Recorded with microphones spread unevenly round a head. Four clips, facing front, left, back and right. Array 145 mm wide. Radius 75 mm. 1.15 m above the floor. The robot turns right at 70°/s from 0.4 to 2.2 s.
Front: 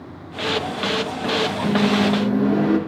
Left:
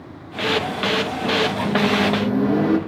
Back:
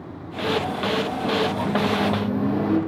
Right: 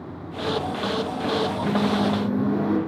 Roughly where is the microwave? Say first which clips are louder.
Left 2 dB, front 3 dB; ahead.